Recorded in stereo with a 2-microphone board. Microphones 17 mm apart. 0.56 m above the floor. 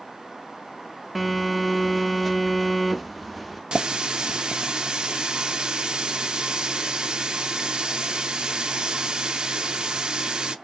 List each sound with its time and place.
1.1 s a phone buzzing: centre (ahead or behind), 0.8 m
3.7 s a running tap: 55° right (ahead or behind), 0.5 m